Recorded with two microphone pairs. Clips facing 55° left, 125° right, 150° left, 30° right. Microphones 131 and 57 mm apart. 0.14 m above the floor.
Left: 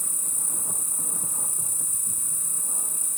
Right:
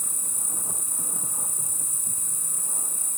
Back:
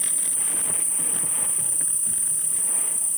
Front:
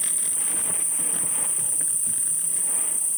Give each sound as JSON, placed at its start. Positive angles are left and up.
{"t": 0.0, "sound": "an insect", "azimuth_deg": -155, "distance_m": 2.0}